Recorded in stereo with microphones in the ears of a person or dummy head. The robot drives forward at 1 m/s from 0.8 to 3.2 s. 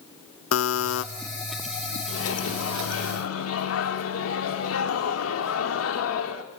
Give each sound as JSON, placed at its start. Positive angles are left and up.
{"t": 0.5, "sound": "a buzzer", "side_deg": 80, "distance_m": 1.6}
{"t": 2.1, "sound": "a microwave", "side_deg": 75, "distance_m": 3.0}